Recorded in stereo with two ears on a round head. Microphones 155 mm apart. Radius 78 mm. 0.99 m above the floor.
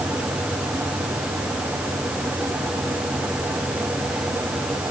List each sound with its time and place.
Only background noise.